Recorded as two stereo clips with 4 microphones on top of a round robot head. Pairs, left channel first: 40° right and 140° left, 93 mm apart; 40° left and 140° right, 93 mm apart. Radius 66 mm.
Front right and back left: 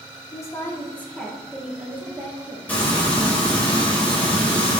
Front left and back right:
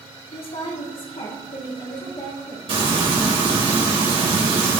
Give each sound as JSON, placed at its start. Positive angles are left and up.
{"t": 0.3, "sound": "a woman speaking", "azimuth_deg": 15, "distance_m": 2.0}
{"t": 2.7, "sound": "frying", "azimuth_deg": -115, "distance_m": 3.0}